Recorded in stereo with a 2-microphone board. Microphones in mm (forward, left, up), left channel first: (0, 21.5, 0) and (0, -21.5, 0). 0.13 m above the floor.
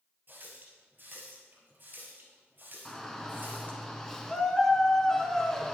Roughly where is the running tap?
Right.